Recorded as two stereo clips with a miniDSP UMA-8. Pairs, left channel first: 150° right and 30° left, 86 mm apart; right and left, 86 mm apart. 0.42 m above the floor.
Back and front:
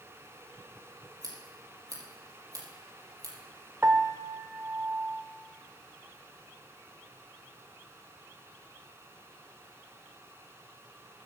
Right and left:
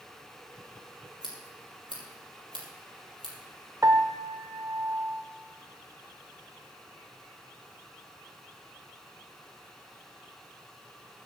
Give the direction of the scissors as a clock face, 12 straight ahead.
10 o'clock.